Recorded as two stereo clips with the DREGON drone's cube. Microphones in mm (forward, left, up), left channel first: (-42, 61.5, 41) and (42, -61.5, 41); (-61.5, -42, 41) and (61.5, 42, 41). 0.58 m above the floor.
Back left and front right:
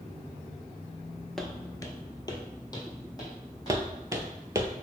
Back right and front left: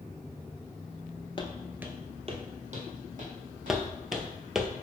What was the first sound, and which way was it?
Footsteps, 150° right.